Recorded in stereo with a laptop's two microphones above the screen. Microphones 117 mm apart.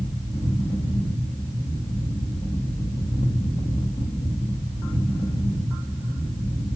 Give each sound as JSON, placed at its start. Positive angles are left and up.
{"t": 0.0, "sound": "a fan", "side_deg": 50, "distance_m": 0.8}